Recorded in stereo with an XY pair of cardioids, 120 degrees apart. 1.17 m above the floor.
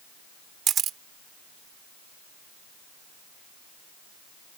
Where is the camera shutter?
50° right.